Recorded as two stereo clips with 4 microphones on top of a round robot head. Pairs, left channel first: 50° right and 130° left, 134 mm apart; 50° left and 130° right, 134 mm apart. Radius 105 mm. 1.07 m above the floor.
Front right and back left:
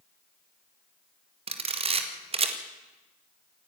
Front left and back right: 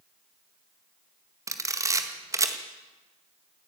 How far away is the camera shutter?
About 1.8 m.